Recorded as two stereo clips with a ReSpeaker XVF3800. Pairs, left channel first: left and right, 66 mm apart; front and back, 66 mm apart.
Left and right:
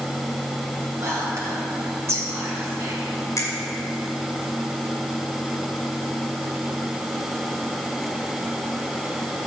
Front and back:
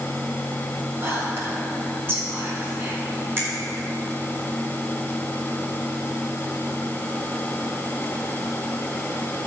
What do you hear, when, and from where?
1.0 s whispering: 130° right, 3 m
3.4 s a finger snap: 125° left, 3 m